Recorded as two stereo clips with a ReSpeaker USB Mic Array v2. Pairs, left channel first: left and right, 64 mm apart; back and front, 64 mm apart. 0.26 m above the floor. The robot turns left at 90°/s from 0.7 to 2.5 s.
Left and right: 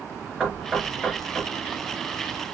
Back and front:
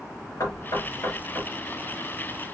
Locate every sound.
0.4 s knocking: 170° right, 3 m; by 1.5 s 120° left, 3 m